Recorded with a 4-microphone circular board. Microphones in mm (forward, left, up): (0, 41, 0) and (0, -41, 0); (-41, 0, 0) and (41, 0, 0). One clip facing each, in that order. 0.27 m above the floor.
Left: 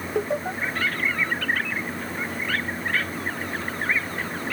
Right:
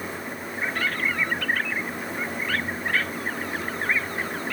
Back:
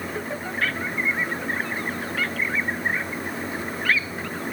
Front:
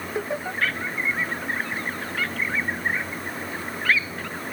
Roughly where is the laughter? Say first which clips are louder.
Left 8 dB, front 5 dB; left.